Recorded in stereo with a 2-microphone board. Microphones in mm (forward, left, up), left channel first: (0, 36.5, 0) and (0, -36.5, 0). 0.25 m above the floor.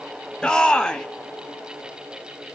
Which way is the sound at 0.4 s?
10° left (ahead or behind).